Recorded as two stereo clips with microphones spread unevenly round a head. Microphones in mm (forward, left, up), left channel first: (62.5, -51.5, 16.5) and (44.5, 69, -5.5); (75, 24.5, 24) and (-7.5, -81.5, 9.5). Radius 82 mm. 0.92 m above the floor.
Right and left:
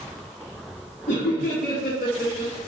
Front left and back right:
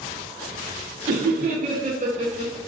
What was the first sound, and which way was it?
Laughter, 130° right.